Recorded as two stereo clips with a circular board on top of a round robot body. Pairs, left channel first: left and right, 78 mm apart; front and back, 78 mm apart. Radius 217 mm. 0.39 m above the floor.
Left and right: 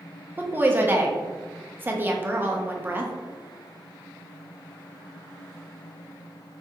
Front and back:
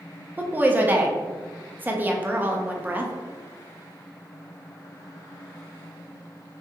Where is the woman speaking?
130° right, 1.0 m.